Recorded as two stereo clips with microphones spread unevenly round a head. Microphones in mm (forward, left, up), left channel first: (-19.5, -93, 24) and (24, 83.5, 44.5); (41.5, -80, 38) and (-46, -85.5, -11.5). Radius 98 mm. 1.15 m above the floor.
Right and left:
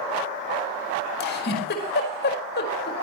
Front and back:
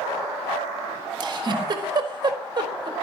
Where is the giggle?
140° right, 4.5 m.